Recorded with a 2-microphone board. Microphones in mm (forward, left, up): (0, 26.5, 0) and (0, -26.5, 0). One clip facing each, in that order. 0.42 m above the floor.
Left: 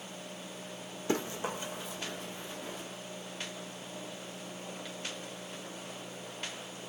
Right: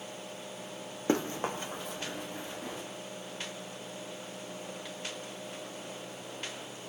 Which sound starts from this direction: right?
Running footsteps, at 1.1 s.